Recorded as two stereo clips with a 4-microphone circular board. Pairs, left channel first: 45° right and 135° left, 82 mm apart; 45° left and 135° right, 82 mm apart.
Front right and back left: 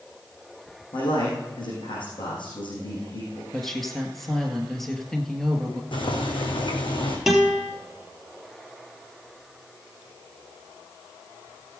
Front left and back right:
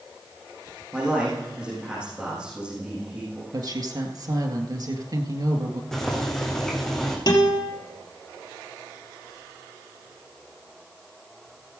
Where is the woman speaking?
130° right, 1.9 m.